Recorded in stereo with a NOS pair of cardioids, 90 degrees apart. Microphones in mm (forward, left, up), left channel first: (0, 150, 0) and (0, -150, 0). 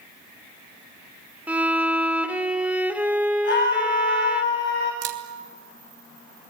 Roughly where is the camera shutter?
Ahead right.